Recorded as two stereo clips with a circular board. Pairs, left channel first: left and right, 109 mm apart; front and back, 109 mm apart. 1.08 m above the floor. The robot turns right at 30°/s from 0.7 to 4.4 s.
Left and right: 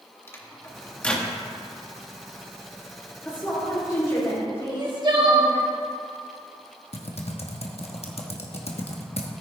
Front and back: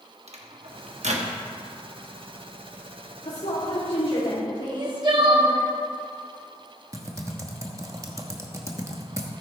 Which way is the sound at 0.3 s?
160° left.